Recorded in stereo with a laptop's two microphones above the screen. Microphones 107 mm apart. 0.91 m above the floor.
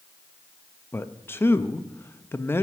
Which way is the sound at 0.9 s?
20° left (ahead or behind).